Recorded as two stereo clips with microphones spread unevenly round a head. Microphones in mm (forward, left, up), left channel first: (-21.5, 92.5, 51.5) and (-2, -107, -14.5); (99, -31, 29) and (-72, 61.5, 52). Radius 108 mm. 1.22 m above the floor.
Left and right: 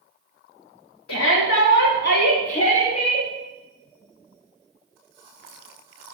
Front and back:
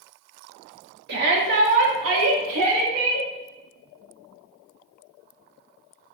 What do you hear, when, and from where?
1.1 s a shout: 115° left, 1.9 m; by 3.3 s 160° left, 2.5 m